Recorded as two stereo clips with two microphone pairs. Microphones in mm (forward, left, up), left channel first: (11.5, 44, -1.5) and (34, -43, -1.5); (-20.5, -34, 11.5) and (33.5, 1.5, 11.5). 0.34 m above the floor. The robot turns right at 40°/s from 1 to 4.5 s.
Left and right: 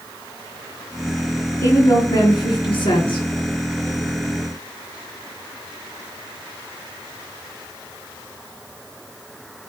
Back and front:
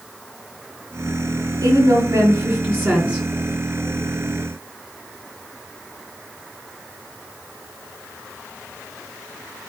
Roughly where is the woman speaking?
Ahead left.